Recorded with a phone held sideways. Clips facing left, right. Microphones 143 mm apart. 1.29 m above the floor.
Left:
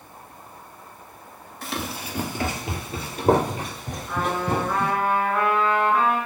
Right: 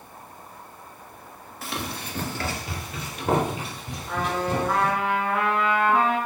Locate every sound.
1.6 s running footsteps: 5° right (ahead or behind), 1.6 m; by 4.9 s 55° left (ahead or behind), 3 m
4.1 s a trumpet: 75° right (ahead or behind), 4 m